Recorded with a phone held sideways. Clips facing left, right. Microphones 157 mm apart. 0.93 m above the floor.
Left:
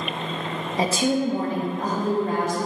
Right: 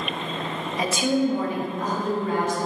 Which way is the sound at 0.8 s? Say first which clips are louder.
Even; 30° left (ahead or behind).